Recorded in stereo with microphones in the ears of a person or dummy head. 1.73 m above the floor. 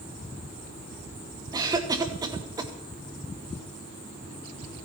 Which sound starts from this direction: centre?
A cough, at 1.5 s.